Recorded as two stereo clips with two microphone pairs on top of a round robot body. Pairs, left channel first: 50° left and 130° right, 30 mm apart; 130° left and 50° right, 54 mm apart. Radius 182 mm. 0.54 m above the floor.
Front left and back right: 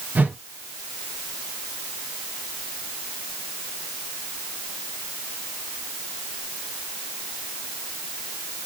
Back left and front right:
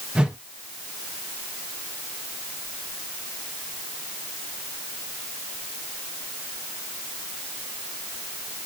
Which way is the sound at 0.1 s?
125° right.